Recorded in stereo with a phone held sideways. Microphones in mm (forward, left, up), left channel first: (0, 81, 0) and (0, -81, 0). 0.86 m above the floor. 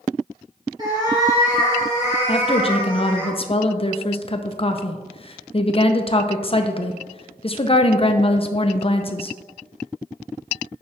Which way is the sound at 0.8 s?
25° right (ahead or behind).